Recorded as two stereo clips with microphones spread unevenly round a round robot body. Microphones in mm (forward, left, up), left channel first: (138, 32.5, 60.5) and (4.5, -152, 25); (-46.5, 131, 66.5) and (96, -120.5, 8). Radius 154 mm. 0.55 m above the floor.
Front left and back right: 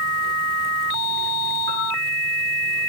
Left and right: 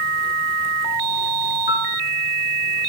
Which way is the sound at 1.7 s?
175° left.